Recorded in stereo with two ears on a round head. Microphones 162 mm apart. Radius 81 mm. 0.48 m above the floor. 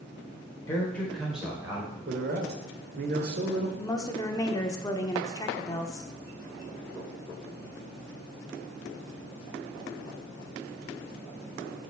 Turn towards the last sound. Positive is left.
turn(degrees=20)  # may be behind; listen again after turning